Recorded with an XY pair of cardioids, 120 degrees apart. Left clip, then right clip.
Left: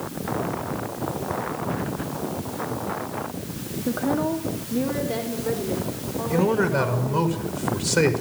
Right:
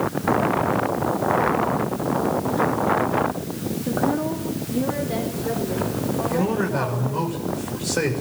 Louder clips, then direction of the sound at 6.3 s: Left 5 dB; 25° left.